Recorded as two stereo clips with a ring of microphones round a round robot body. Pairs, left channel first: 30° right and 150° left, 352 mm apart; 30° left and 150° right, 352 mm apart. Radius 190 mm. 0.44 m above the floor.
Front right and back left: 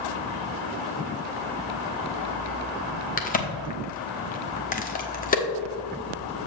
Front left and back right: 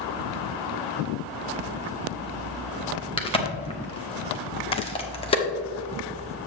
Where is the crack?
20° right, 1.2 m.